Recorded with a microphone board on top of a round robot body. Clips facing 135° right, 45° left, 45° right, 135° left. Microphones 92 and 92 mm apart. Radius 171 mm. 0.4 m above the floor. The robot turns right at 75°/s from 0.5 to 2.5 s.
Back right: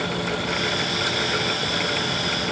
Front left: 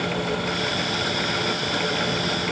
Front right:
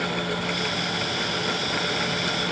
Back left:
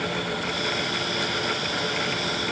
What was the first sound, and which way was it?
Only background noise.